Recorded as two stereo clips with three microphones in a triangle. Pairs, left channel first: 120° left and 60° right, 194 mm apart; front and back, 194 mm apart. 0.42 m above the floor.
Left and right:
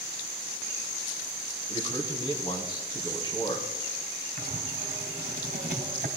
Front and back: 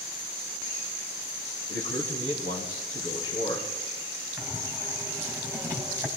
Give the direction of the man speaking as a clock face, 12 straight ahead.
6 o'clock.